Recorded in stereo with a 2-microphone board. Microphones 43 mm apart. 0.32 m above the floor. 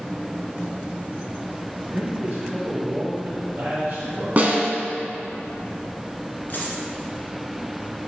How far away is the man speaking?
About 2.5 m.